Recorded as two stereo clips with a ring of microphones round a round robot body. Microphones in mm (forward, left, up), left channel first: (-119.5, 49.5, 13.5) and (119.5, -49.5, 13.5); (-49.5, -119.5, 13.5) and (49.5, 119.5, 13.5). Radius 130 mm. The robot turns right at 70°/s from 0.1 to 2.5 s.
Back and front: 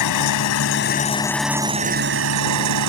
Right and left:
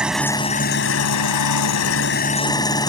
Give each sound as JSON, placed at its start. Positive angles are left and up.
{"t": 0.0, "sound": "an engine running", "azimuth_deg": 155}